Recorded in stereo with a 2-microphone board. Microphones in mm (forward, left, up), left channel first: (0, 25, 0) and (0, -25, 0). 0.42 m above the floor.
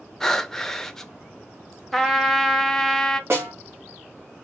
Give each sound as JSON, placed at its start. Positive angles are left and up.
{"t": 0.2, "sound": "breathing", "side_deg": 10, "distance_m": 0.5}
{"t": 1.9, "sound": "a trumpet", "side_deg": 0, "distance_m": 0.7}
{"t": 3.3, "sound": "a snare drum", "side_deg": -60, "distance_m": 2.0}